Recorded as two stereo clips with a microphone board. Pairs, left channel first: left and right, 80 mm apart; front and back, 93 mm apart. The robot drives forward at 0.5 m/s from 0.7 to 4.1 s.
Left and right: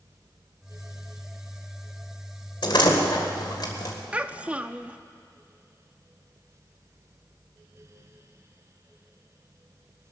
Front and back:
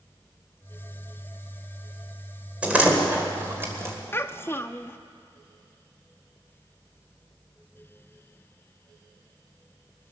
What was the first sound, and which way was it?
A door slam, 105° left.